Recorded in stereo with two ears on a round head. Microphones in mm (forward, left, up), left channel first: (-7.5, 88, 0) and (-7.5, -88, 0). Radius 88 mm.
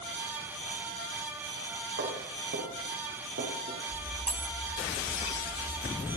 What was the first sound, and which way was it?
Footsteps, 60° right (ahead or behind).